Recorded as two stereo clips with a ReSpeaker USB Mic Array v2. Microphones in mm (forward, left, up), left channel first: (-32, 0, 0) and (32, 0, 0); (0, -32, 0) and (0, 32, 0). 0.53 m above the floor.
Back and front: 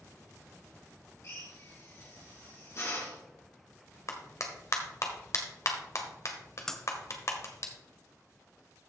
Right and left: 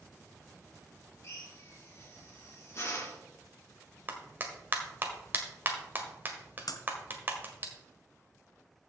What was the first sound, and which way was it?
A drill, 140° right.